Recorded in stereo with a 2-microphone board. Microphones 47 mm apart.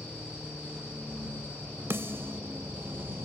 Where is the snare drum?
55° right (ahead or behind).